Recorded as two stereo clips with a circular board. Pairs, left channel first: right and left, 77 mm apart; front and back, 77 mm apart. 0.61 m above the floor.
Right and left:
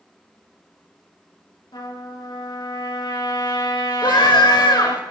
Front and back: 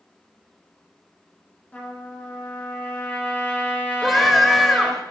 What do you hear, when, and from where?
1.7 s a trumpet: 70° right, 4.5 m
4.0 s a scream: 90° right, 2.5 m